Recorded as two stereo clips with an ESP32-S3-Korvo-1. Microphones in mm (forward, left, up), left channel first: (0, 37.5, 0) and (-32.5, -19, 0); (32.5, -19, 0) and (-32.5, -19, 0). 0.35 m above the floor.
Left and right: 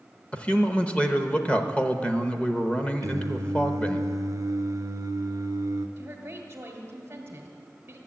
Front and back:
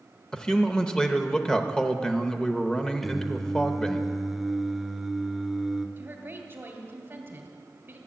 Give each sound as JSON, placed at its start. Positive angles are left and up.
{"t": 0.3, "sound": "a man speaking", "azimuth_deg": 50, "distance_m": 0.8}
{"t": 3.0, "sound": "singing", "azimuth_deg": -90, "distance_m": 0.7}
{"t": 6.0, "sound": "a woman speaking", "azimuth_deg": -160, "distance_m": 1.7}